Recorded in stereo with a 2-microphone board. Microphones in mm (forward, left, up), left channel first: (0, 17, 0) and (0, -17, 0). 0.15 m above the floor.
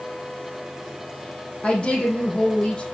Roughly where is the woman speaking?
Left.